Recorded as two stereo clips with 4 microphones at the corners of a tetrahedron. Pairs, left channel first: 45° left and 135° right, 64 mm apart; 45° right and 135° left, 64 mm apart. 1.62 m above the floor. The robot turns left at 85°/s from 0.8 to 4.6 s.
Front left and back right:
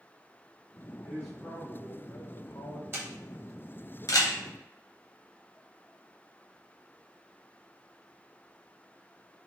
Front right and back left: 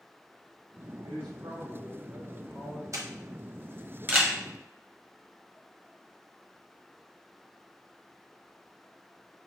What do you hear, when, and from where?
1.0 s a man speaking: 145° left, 0.8 m; by 2.8 s 10° right, 0.8 m
2.9 s a camera shutter: 170° left, 0.8 m; by 4.4 s 50° left, 0.8 m